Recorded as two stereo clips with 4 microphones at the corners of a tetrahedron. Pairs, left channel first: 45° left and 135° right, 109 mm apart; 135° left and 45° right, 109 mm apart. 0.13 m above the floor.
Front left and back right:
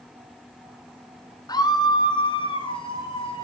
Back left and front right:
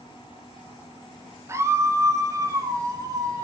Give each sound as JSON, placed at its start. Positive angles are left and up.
{"t": 1.5, "sound": "a scream", "azimuth_deg": 10, "distance_m": 2.5}